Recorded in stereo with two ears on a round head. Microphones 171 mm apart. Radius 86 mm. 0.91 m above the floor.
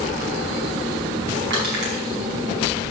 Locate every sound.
1.5 s crushing: 65° right (ahead or behind), 5 m